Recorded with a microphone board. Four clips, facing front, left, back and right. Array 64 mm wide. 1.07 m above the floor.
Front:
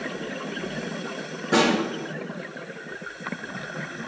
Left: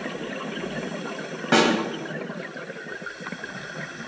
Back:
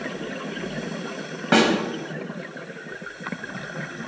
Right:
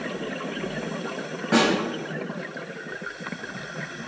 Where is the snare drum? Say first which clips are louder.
Left 1 dB, back 2 dB; 155° left, 2.0 m.